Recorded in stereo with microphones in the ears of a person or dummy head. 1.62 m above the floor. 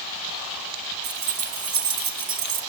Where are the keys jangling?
55° right (ahead or behind), 1.6 m.